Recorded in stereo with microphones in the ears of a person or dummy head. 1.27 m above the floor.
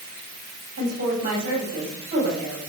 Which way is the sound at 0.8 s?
40° right (ahead or behind).